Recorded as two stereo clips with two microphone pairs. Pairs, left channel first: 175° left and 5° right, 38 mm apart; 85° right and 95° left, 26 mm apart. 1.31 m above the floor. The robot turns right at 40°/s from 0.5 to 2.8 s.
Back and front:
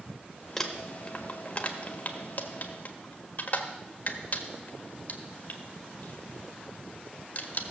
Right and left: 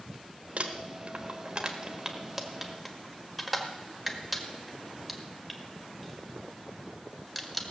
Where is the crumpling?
100° left, 1.4 m; by 7.7 s 170° right, 1.4 m.